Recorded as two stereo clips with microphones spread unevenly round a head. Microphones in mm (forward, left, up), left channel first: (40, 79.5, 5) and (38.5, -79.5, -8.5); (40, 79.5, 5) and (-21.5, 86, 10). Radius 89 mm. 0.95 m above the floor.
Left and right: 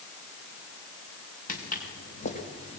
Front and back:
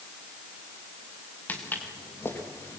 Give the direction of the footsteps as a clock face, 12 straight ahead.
10 o'clock.